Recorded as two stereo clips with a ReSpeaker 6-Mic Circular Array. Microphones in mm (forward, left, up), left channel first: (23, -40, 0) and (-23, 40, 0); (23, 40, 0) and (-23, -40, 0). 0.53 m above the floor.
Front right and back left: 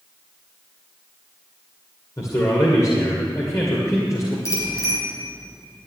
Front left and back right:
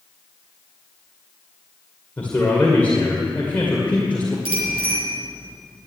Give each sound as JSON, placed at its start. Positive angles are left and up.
{"t": 2.2, "sound": "a man speaking", "azimuth_deg": -10, "distance_m": 2.5}
{"t": 4.5, "sound": "a bicycle bell", "azimuth_deg": -110, "distance_m": 5.0}